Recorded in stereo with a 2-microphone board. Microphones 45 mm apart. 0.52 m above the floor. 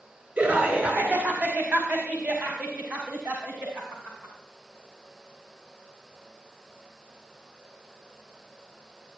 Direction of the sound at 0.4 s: 40° right (ahead or behind).